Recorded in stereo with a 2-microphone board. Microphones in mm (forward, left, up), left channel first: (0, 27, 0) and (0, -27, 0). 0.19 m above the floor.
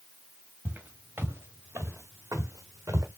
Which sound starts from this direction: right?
Footsteps, at 0.7 s.